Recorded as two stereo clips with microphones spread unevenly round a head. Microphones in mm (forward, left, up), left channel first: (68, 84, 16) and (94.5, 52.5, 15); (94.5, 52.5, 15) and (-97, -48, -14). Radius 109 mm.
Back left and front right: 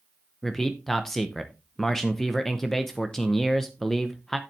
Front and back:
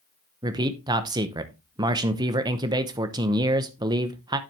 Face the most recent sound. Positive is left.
turn(degrees=-150)